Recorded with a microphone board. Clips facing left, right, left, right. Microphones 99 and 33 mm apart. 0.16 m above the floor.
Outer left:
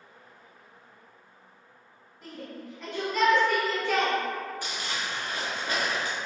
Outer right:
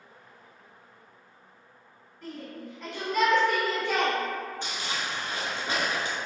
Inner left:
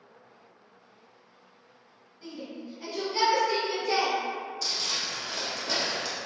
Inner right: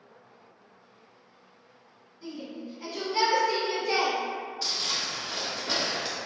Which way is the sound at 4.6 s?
25° right (ahead or behind).